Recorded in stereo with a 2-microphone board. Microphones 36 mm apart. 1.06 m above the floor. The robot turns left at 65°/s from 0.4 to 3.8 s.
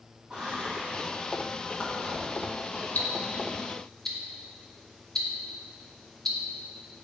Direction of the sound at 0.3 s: 25° right (ahead or behind).